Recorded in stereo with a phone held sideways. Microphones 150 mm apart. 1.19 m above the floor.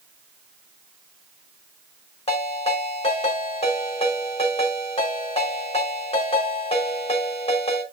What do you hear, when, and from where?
2.3 s a ringtone: 40° left (ahead or behind), 3 m